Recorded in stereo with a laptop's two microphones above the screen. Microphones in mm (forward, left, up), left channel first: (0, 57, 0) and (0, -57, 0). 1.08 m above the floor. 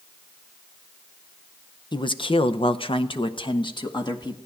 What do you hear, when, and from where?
1.9 s a man speaking: 40° left (ahead or behind), 0.6 m